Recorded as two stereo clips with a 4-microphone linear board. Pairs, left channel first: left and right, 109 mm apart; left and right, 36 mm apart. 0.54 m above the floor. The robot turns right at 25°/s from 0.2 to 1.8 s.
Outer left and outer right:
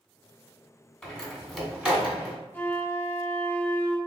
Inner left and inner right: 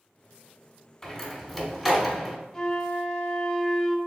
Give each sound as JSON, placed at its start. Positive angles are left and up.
{"t": 1.0, "sound": "a door slam", "side_deg": 10, "distance_m": 1.0}
{"t": 2.5, "sound": "a flute", "side_deg": 15, "distance_m": 0.5}